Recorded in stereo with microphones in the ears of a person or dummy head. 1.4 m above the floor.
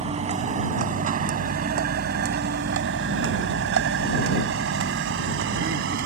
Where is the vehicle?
35° right (ahead or behind); by 6.1 s 75° right (ahead or behind).